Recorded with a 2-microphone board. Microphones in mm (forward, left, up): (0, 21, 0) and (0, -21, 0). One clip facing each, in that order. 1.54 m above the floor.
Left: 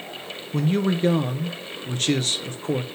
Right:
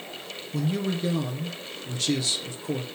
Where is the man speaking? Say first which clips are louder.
Left 5 dB; 50° left (ahead or behind), 0.6 m.